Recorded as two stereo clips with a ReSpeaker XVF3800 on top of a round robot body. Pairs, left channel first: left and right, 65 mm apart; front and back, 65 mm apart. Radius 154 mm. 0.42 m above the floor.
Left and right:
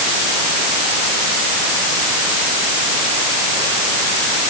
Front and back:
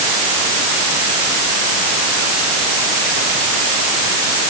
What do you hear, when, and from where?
Only background noise.